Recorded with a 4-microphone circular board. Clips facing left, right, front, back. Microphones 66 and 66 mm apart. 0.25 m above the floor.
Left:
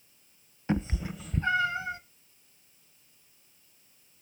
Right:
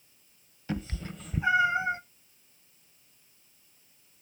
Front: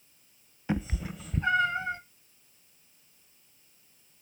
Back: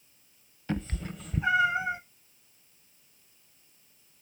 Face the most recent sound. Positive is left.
turn(degrees=-115)